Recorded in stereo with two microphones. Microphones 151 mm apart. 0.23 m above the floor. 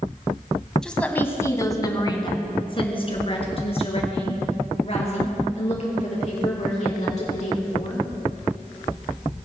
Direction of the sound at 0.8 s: 5° left (ahead or behind).